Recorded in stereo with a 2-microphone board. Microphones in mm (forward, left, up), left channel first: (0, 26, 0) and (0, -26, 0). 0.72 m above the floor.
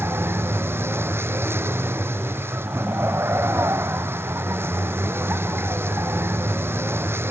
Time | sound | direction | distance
0.0 | a vehicle | 50° right (ahead or behind) | ?